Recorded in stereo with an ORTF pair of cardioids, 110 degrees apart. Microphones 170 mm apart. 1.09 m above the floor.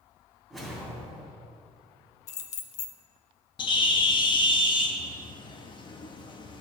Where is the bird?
30° left, 0.9 m.